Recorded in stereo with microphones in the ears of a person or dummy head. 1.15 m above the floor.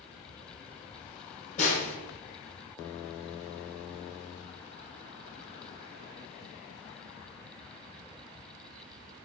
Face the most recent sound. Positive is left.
turn(degrees=40)  # may be behind; listen again after turning